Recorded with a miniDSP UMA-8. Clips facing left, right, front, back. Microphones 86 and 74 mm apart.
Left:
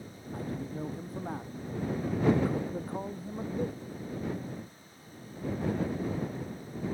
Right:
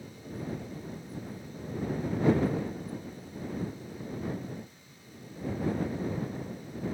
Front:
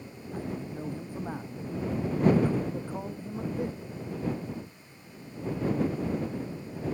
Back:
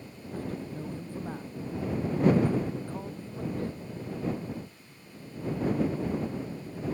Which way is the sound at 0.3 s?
75° left.